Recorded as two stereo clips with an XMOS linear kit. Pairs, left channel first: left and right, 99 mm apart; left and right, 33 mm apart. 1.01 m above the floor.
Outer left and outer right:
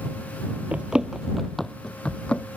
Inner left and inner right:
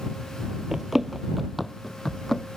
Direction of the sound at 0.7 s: 15° right (ahead or behind).